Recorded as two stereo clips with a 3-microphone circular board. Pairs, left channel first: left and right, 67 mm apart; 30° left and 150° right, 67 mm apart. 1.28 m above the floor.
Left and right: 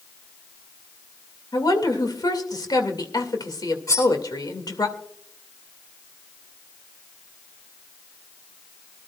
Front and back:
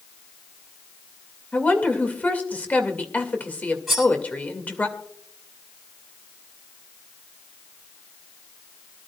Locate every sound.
1.5 s a woman speaking: 95° left, 2 m
3.9 s cutlery clinking: 120° left, 8 m